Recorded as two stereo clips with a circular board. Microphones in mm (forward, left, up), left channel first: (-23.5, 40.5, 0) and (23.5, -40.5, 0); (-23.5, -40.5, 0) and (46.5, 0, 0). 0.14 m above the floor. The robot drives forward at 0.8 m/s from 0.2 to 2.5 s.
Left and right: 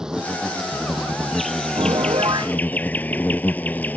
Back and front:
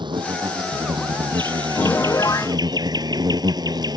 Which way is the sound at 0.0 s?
25° left.